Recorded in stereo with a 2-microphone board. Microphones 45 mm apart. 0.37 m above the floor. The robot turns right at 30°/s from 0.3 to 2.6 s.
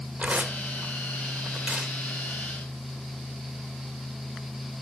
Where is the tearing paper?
35° right (ahead or behind), 1.3 m; by 1.9 s 25° right (ahead or behind), 1.3 m.